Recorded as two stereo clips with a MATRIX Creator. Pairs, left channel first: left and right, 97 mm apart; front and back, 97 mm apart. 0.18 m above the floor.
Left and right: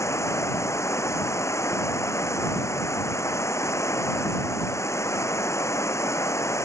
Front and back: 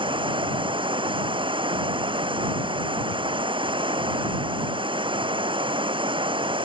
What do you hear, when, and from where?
0.0 s running water: 150° left